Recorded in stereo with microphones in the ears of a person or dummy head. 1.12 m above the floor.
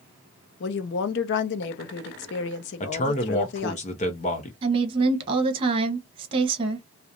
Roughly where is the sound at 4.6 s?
Right.